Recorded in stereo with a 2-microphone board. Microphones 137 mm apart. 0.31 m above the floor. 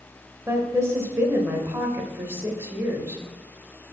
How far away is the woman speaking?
About 0.9 m.